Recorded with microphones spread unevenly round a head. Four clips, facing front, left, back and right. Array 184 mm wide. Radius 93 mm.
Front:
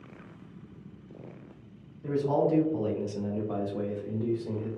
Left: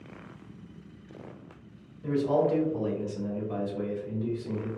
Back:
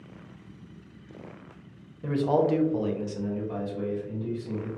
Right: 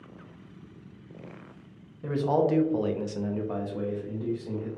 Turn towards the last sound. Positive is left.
turn(degrees=-25)